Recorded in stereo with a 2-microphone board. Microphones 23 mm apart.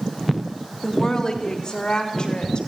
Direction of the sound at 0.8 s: 30° left (ahead or behind).